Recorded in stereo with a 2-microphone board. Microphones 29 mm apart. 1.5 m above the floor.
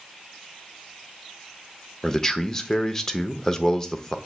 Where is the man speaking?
15° left (ahead or behind), 0.6 m.